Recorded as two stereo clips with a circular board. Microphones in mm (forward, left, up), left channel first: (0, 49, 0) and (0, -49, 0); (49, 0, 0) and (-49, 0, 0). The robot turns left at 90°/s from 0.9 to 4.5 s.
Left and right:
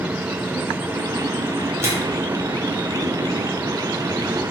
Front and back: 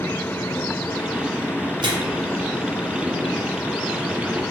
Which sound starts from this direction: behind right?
A microwave, at 1.8 s.